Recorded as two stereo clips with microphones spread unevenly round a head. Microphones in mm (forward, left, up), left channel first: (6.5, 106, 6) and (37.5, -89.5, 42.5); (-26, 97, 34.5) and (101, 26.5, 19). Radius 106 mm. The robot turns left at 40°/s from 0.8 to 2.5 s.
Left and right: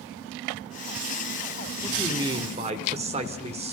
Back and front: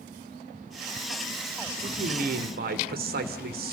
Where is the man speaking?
5° left, 3 m; by 3.7 s 20° right, 3 m.